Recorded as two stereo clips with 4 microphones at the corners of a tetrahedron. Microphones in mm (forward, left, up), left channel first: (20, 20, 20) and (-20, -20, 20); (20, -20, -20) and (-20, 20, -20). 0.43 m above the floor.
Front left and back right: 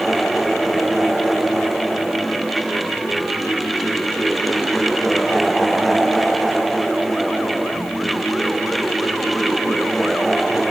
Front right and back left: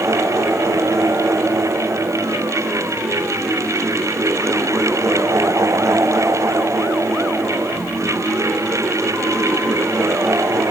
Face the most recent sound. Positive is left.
No sound to turn to.